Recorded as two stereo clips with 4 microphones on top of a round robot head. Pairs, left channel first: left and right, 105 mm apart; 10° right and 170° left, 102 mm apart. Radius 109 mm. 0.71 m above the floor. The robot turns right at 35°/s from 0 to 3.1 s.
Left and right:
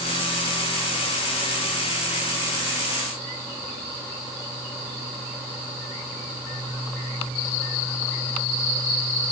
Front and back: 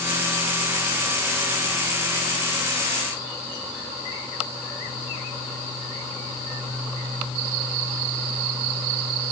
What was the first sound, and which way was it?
Only background noise.